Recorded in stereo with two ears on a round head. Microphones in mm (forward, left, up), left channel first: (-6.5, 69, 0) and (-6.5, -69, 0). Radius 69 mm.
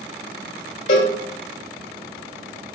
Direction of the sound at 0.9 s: 50° left (ahead or behind).